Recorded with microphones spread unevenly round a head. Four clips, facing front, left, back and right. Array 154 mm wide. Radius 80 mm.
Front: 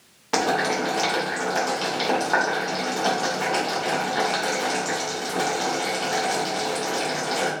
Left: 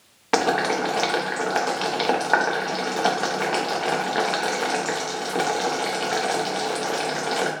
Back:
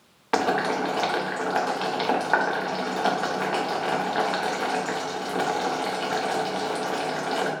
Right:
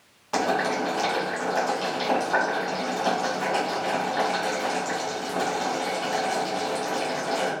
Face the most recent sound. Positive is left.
turn(degrees=85)